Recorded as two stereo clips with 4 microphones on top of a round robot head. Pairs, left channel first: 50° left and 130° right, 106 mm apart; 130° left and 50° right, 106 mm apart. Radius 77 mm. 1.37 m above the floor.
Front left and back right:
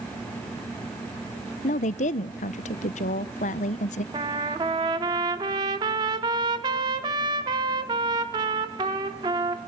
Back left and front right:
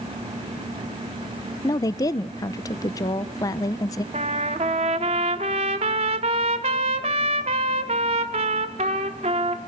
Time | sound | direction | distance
1.6 | a woman speaking | 65° left | 0.6 m
4.1 | a trumpet | 80° right | 1.1 m